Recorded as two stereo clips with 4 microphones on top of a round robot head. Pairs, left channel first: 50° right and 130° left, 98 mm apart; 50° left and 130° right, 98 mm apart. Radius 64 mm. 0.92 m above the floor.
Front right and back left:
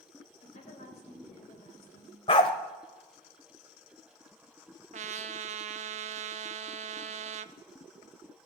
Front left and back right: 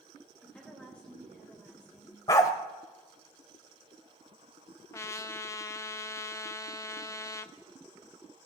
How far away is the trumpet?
About 0.6 m.